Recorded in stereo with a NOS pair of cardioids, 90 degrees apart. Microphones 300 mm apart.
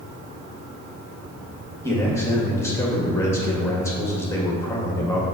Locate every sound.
1.8 s a man speaking: 10° left, 1.2 m